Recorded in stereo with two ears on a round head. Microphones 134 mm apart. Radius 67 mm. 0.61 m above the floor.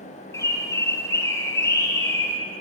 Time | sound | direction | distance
0.3 | a bird | 20° left (ahead or behind) | 4 m